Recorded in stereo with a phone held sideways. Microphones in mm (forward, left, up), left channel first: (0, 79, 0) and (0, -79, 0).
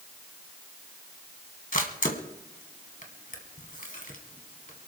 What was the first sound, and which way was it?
A camera shutter, 60° left (ahead or behind).